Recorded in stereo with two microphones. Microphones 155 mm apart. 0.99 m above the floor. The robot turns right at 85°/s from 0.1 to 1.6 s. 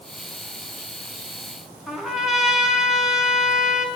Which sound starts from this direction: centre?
A trumpet, at 1.9 s.